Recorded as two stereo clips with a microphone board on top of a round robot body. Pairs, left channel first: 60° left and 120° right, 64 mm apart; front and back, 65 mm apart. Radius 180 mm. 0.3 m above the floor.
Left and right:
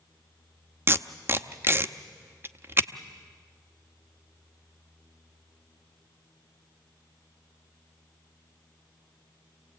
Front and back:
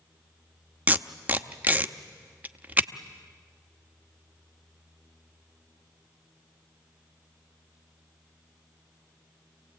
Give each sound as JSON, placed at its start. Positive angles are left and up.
{"t": 0.9, "sound": "tape being pulled", "azimuth_deg": -135, "distance_m": 1.1}